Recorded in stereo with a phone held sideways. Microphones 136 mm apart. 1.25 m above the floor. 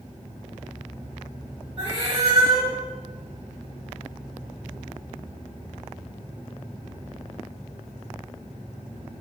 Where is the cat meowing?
40° right (ahead or behind), 1.1 m.